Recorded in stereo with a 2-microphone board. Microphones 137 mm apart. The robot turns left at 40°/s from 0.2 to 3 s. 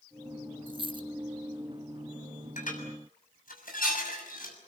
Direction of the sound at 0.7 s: 40° right (ahead or behind).